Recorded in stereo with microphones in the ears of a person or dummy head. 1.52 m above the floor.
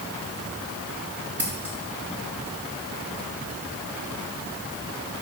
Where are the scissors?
10° right (ahead or behind), 0.8 m.